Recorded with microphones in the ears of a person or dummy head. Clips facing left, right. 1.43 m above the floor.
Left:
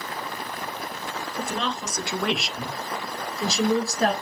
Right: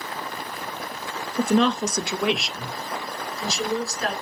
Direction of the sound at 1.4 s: 60° right (ahead or behind).